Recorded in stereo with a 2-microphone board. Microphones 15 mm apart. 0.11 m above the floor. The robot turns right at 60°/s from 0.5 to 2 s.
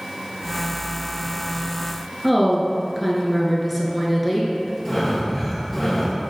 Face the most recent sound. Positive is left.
turn(degrees=15)  # may be behind; listen again after turning